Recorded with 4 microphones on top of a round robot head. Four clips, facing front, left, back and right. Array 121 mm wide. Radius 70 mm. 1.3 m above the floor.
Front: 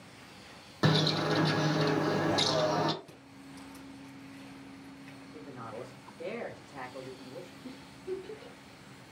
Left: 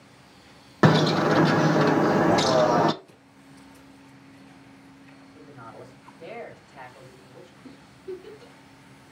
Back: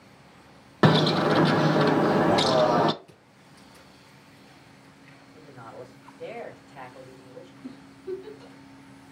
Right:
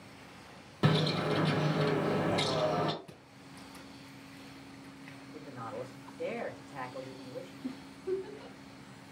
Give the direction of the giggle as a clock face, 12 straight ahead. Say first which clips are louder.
Right 2 dB, back 5 dB; 4 o'clock.